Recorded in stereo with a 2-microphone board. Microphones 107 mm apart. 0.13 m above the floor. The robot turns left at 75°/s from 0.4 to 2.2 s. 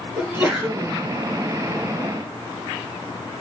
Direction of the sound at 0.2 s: 155° right.